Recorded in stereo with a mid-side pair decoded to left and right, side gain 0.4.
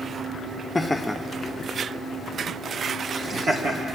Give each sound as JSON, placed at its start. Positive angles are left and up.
{"t": 0.8, "sound": "laughter", "azimuth_deg": 20, "distance_m": 0.6}